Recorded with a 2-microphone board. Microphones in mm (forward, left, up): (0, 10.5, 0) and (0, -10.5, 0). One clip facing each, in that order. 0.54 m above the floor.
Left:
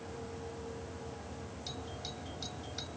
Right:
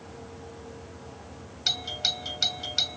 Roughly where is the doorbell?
Right.